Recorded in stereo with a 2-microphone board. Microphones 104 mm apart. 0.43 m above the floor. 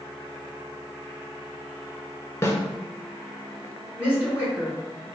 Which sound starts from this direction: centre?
A woman speaking, at 4.0 s.